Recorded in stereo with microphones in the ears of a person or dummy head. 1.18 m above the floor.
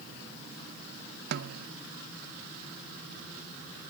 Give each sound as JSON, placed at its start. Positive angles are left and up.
{"t": 1.3, "sound": "a snare drum", "side_deg": -60}